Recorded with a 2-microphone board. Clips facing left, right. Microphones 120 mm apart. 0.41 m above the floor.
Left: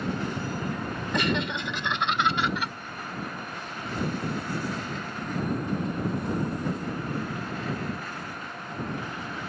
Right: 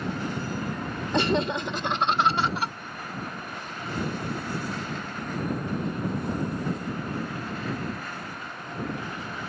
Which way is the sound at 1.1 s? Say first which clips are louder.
Right 4 dB; 25° right (ahead or behind).